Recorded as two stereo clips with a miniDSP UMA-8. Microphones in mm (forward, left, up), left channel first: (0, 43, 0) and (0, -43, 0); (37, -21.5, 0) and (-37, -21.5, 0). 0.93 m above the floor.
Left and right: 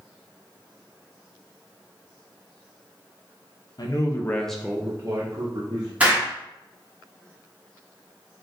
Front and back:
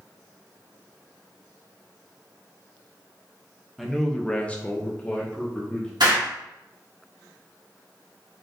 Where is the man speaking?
85° left, 0.8 m; by 5.9 s 70° right, 1.3 m.